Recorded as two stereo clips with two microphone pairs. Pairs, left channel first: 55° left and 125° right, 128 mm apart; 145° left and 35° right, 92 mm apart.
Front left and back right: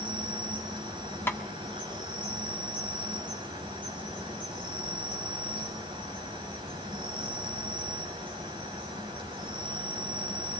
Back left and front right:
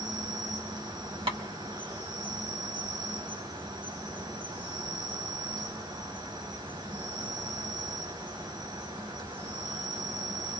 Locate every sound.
0.0 s an insect: 75° right, 5.5 m
1.3 s tapping: 20° right, 1.6 m